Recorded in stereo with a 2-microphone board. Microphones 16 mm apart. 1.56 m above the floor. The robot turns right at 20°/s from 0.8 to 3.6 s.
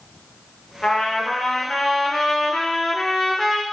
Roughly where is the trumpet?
Left.